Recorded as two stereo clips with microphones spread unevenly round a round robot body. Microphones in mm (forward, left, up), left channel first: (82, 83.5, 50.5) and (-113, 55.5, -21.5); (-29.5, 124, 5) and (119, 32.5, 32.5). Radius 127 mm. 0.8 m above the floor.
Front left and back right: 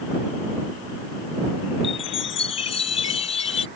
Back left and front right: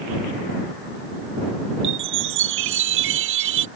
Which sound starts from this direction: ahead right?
A chime, at 1.8 s.